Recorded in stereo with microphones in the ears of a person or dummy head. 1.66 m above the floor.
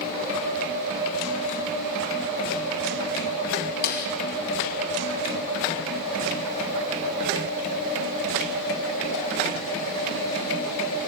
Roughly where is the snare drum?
Left.